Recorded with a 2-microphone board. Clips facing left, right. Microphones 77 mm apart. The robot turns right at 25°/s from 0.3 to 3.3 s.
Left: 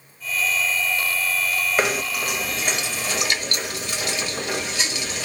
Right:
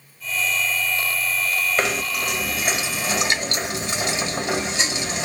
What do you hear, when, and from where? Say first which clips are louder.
1.8 s knocking: left 1 dB; 170° left, 1.2 m; by 5.2 s 155° right, 1.2 m